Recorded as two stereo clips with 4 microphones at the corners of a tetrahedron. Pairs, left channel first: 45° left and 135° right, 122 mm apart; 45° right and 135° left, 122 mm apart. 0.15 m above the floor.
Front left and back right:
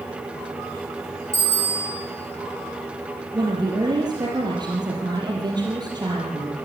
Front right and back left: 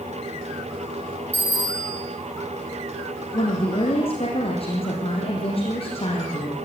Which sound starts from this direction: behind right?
A bicycle bell, at 1.3 s.